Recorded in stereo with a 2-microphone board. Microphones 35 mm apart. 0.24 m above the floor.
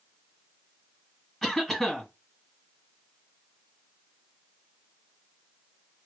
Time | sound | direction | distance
1.4 | a cough | centre (ahead or behind) | 1.7 m